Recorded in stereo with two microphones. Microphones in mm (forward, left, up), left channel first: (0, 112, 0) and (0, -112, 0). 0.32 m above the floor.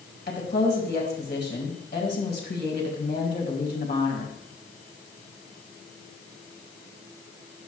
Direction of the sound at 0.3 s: 50° left (ahead or behind).